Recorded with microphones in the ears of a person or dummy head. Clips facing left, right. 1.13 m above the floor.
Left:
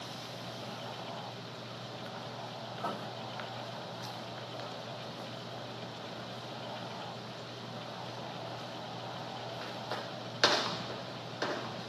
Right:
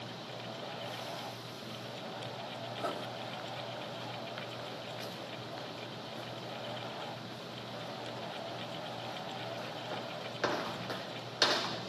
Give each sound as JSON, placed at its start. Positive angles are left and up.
{"t": 2.8, "sound": "writing", "side_deg": -25, "distance_m": 1.0}